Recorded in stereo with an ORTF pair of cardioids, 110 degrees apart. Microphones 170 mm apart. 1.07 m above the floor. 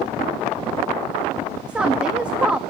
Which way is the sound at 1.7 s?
5° right.